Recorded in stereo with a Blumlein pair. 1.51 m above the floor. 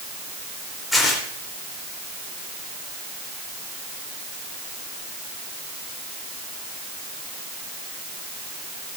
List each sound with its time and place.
0.9 s tearing paper: 5° left, 3 m